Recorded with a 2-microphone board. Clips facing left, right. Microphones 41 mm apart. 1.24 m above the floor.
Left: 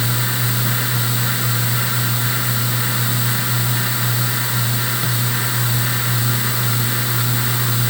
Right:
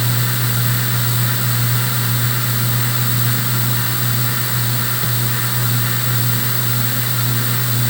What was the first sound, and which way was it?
Only background noise.